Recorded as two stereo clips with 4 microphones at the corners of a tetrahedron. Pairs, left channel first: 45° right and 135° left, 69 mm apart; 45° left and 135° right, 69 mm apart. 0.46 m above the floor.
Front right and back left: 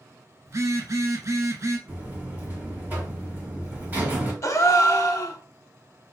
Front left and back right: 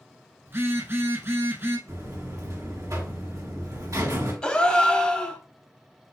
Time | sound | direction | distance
0.5 | a phone buzzing | 175° left | 0.8 m
1.9 | a buzzer | 160° right | 2.5 m
4.4 | a gasp | 25° right | 0.7 m